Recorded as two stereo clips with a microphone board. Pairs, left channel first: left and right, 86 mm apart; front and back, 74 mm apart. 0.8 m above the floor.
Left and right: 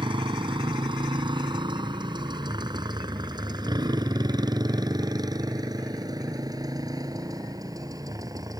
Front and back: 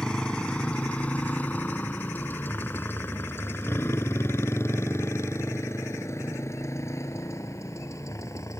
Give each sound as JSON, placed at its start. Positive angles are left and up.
{"t": 0.0, "sound": "a motorcycle", "azimuth_deg": -75}